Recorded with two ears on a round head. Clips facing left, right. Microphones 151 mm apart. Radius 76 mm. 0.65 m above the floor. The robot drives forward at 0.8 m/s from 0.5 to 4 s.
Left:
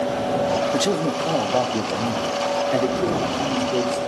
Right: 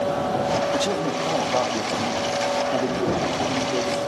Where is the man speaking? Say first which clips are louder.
Left 2 dB; 20° left (ahead or behind), 1.0 m; by 4.0 s 10° left (ahead or behind), 2.5 m.